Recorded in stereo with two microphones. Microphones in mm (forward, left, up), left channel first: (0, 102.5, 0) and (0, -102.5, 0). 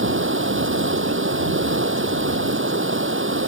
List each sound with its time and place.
0.0 s running water: 75° right (ahead or behind)